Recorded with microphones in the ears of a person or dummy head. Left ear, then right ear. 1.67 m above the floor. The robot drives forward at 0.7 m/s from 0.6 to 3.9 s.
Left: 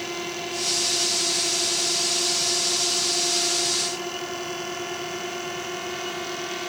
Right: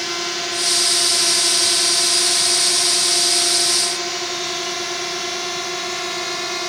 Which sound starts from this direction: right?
A drone, at 0.0 s.